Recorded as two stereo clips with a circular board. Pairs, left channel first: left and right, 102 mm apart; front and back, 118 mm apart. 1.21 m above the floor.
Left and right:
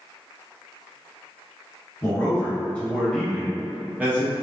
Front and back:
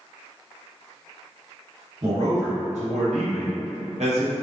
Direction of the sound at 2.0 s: 155° left.